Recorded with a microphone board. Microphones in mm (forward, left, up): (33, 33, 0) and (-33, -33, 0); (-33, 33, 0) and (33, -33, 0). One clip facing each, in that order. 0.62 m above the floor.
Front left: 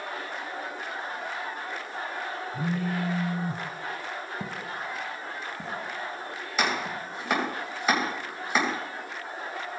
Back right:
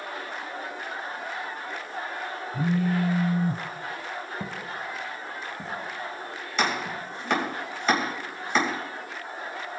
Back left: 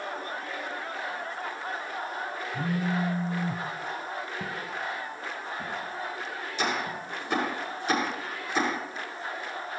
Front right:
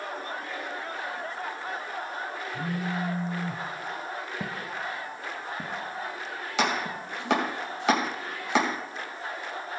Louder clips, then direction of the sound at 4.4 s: Even, even; 35° right.